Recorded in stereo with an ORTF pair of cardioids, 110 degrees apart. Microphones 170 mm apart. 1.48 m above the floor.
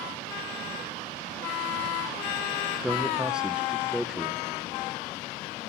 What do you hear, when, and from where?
2.8 s a man speaking: 5° right, 0.9 m